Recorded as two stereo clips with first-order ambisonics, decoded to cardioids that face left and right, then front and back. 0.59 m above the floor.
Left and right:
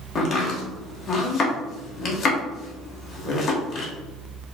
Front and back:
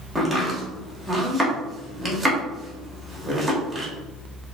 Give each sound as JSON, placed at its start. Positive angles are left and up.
{"t": 0.1, "sound": "chopping", "azimuth_deg": 105, "distance_m": 0.9}